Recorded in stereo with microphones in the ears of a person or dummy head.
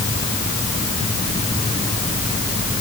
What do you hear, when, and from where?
Only background noise.